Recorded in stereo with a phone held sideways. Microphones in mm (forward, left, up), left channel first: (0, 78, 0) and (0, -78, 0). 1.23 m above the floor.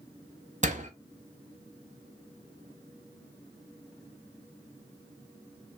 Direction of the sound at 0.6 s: 50° right (ahead or behind).